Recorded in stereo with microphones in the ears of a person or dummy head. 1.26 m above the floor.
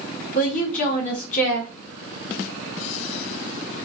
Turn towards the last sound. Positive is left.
turn(degrees=40)  # may be behind; listen again after turning